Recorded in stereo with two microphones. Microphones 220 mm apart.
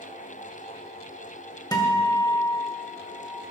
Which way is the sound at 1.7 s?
20° left (ahead or behind).